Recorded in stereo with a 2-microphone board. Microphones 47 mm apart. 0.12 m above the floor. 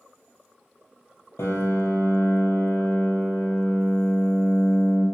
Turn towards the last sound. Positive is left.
turn(degrees=75)  # may be behind; listen again after turning